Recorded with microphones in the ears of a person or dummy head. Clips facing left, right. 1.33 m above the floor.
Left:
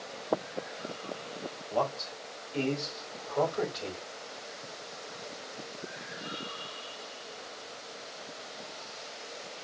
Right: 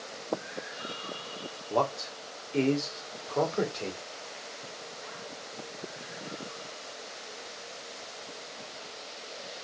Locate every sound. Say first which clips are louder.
1.7 s a man speaking: right 2 dB; 65° right (ahead or behind), 3 m; by 4.0 s 30° right (ahead or behind), 3.5 m